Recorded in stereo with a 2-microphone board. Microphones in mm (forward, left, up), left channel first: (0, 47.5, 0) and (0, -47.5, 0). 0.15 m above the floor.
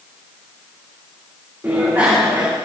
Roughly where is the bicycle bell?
Right.